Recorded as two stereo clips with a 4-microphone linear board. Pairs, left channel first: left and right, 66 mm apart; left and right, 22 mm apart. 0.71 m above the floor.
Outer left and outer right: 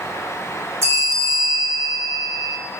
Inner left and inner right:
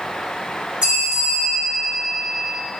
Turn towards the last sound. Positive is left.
turn(degrees=-40)  # may be behind; listen again after turning